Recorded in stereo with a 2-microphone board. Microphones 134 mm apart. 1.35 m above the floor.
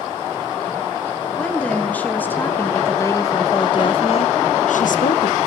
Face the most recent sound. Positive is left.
turn(degrees=65)  # may be behind; listen again after turning